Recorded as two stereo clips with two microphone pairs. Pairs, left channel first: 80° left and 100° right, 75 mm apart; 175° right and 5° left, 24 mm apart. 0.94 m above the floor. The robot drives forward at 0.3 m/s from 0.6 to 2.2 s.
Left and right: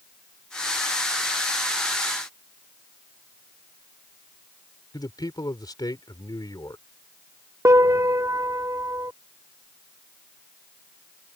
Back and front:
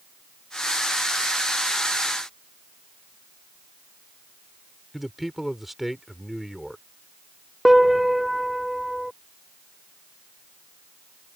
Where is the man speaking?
90° left.